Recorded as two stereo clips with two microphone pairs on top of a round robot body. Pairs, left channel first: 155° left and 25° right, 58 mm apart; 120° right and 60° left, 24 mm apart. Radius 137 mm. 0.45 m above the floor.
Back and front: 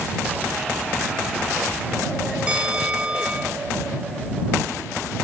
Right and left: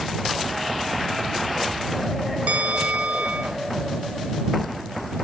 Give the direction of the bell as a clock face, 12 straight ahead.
10 o'clock.